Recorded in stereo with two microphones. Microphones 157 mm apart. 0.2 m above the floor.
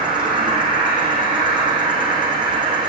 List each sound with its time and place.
0.0 s an insect: 30° right (ahead or behind), 5.5 m